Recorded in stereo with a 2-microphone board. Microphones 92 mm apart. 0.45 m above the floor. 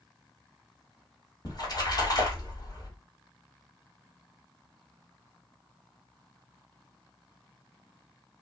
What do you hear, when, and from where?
1.4 s a splash: 45° left (ahead or behind), 1.2 m